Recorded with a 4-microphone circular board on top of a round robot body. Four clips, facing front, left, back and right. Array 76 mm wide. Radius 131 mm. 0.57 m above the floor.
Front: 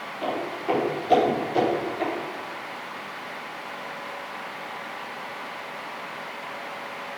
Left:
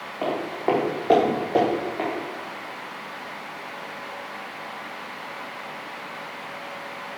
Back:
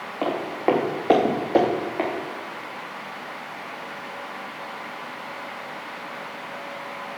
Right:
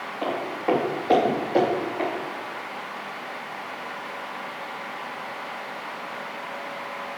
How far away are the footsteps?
About 3 m.